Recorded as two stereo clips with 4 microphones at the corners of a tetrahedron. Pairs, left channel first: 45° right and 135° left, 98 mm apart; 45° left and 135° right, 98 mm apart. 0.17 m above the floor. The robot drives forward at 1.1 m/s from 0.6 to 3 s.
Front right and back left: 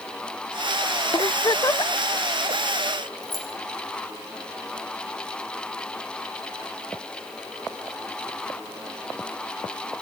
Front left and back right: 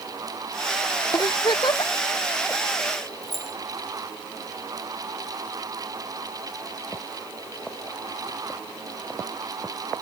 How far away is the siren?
No siren in this recording.